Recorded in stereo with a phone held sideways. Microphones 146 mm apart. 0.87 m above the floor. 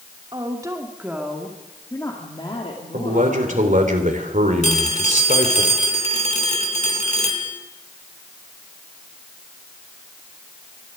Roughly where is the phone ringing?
Left.